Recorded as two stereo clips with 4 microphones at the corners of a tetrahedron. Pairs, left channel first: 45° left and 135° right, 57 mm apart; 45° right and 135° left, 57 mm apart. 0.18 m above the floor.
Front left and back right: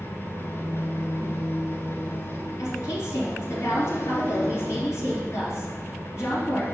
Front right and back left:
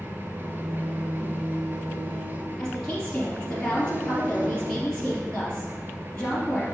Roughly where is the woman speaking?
Ahead left.